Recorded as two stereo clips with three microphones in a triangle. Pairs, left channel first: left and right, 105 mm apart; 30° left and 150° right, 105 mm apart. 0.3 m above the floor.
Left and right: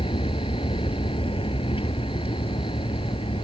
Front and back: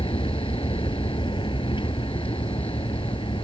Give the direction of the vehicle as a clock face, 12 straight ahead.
10 o'clock.